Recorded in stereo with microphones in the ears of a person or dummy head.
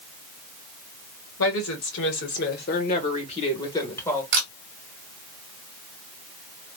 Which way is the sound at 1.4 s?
65° left (ahead or behind).